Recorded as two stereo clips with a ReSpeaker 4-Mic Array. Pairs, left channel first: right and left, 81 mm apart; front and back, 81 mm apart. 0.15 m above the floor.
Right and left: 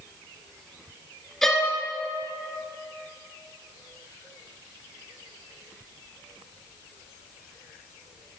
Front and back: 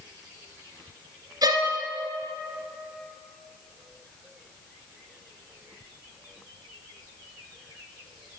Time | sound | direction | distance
1.4 | a violin | 175° right | 1.2 m